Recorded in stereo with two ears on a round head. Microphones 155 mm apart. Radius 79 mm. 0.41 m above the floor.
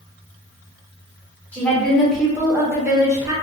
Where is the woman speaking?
10° left (ahead or behind), 0.8 m; by 3.3 s 20° right (ahead or behind), 1.0 m.